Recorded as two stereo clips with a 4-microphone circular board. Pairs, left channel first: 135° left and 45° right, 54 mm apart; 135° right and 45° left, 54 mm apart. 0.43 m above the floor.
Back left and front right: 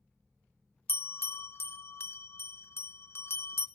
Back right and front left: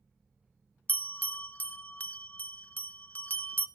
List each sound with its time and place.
0.9 s a bell: 170° left, 0.7 m